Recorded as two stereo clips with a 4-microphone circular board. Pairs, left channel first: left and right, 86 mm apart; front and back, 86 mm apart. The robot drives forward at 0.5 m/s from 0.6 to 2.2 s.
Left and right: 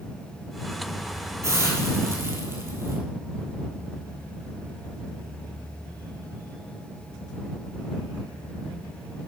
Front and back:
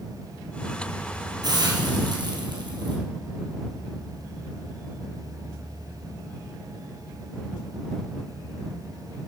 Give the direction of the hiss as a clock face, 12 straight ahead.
5 o'clock.